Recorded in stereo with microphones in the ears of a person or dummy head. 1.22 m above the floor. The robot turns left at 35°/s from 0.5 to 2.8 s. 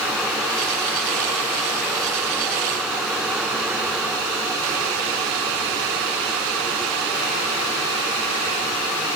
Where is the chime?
I don't hear a chime.